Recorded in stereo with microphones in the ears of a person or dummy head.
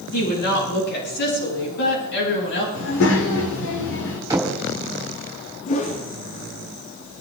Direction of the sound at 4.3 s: 15° right (ahead or behind).